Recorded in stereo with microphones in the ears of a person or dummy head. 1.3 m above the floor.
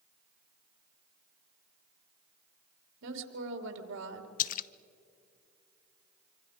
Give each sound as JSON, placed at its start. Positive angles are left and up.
{"t": 3.0, "sound": "a woman speaking", "side_deg": -75, "distance_m": 2.5}
{"t": 4.4, "sound": "a splash", "side_deg": 40, "distance_m": 0.5}